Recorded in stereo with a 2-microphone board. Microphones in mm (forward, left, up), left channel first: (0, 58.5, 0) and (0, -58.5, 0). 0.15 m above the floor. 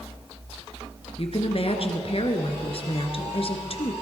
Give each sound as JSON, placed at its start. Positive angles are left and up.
{"t": 1.2, "sound": "a woman speaking", "side_deg": 55, "distance_m": 1.7}